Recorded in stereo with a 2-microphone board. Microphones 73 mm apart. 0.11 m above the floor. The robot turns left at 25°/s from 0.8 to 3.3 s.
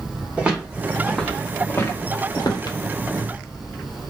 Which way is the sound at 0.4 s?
15° right (ahead or behind).